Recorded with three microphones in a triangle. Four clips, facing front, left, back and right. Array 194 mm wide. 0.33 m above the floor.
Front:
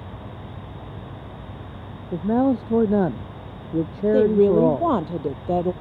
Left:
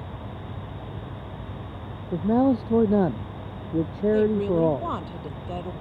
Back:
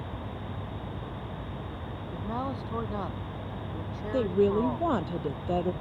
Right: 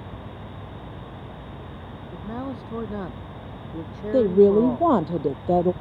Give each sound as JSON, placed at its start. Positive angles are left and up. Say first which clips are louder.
{"t": 2.1, "sound": "a man speaking", "louder": "left 13 dB, front 15 dB", "azimuth_deg": 40}
{"t": 4.1, "sound": "a woman speaking", "louder": "right 8 dB, front 8 dB", "azimuth_deg": -65}